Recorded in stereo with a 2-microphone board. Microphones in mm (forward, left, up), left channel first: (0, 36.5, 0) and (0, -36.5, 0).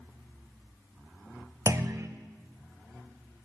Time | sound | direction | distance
1.7 | a clunk | 40° right (ahead or behind) | 0.6 m